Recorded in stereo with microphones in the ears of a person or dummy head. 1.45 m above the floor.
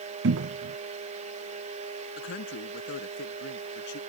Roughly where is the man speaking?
Left.